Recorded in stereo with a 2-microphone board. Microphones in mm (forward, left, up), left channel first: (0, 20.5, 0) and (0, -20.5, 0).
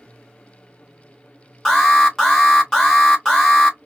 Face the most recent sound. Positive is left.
turn(degrees=10)  # may be behind; listen again after turning